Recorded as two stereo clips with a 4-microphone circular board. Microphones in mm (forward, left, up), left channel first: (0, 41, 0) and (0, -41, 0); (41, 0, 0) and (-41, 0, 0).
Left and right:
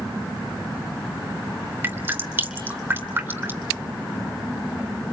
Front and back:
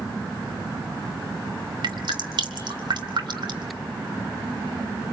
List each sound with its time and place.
1.8 s dripping: 155° right, 2.5 m